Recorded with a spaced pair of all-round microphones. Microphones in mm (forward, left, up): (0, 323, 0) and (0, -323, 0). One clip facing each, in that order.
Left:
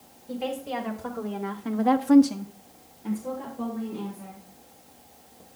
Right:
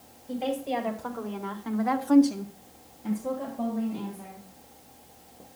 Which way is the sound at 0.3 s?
35° left (ahead or behind).